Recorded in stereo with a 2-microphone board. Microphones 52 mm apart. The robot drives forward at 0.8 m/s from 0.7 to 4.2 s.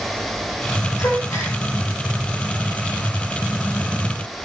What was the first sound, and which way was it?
A gasp, 80° left.